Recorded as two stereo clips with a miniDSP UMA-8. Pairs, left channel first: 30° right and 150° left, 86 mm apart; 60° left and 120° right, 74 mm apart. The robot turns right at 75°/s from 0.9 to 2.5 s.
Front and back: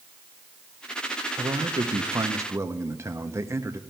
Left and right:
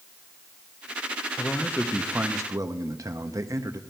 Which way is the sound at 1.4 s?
120° left.